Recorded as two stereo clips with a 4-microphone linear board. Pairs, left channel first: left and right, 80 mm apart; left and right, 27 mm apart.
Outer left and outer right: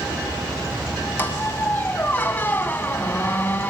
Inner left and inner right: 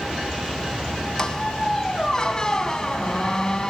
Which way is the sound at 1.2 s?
25° left (ahead or behind).